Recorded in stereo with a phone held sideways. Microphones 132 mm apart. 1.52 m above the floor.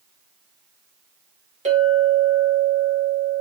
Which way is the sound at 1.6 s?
50° right (ahead or behind).